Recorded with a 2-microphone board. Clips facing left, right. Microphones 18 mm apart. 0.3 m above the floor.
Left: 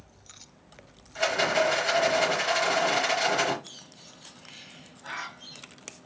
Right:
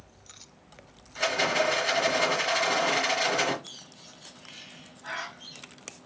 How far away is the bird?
About 2 m.